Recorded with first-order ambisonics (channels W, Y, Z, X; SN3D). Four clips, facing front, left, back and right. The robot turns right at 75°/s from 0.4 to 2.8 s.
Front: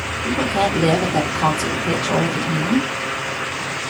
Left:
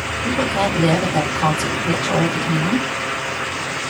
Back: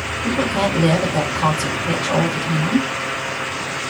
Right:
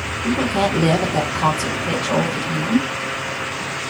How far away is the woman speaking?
About 1.1 m.